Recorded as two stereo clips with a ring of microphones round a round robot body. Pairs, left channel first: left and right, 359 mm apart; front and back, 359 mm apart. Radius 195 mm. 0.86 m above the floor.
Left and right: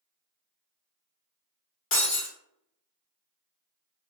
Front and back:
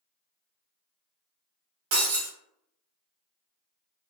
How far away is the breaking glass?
About 1.5 m.